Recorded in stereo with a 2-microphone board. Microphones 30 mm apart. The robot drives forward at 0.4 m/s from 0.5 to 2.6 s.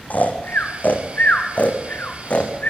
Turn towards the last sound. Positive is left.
turn(degrees=50)  # may be behind; listen again after turning